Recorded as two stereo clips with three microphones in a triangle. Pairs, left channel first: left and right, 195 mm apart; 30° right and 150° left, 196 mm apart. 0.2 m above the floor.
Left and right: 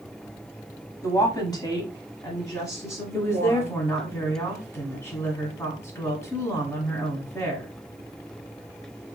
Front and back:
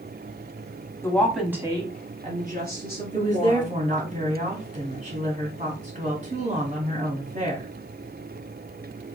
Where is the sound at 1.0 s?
35° left, 1.1 m; by 4.1 s 170° left, 2.5 m.